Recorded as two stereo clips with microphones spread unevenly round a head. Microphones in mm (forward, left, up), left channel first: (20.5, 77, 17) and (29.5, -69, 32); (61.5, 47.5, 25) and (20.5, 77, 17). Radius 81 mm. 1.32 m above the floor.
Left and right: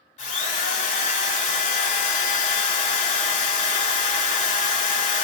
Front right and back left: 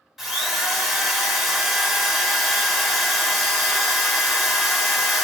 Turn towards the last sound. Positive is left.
turn(degrees=60)